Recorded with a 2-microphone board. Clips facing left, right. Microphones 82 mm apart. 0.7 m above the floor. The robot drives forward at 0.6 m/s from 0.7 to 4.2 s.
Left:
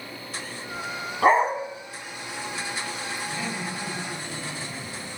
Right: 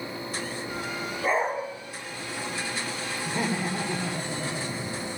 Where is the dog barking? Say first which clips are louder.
Left 7 dB; 70° left (ahead or behind), 2 m; by 1.6 s 75° left (ahead or behind), 2 m.